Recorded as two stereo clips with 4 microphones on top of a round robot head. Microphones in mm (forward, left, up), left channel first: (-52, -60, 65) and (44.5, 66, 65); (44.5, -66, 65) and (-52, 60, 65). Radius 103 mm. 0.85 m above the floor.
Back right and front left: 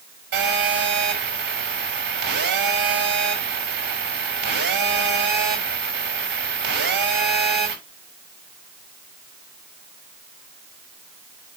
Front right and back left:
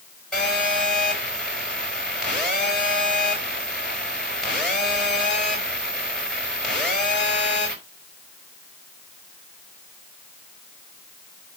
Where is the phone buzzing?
35° left, 6 m.